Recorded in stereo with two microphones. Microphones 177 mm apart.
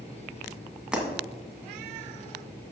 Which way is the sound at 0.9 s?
5° right (ahead or behind).